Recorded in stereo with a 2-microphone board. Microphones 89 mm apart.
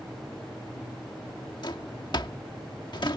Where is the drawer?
60° left (ahead or behind).